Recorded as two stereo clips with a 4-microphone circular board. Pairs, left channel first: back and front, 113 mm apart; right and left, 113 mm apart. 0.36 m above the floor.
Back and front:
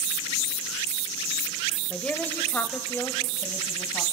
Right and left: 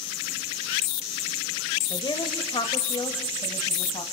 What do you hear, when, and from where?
1.9 s a woman speaking: 105° right, 1.1 m; by 4.0 s 120° right, 2 m